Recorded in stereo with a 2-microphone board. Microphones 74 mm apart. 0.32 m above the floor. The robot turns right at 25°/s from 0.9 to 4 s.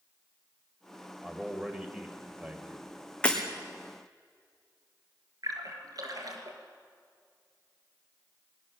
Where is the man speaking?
10° right (ahead or behind), 1.3 m; by 2.9 s 25° right (ahead or behind), 1.3 m.